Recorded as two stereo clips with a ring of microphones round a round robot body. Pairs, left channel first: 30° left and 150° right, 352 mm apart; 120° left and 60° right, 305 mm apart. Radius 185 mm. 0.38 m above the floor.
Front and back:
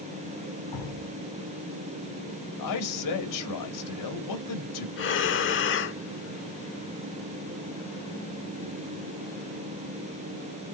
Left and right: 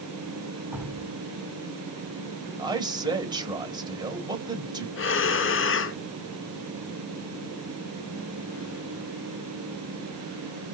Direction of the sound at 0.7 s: 30° left.